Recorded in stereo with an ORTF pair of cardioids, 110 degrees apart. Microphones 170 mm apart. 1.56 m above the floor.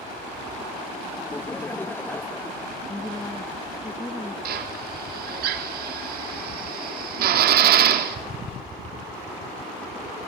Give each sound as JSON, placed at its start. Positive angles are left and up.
{"t": 1.2, "sound": "laughter", "azimuth_deg": 10, "distance_m": 0.6}
{"t": 2.9, "sound": "a woman speaking", "azimuth_deg": 10, "distance_m": 2.0}
{"t": 4.5, "sound": "a drill", "azimuth_deg": -65, "distance_m": 4.0}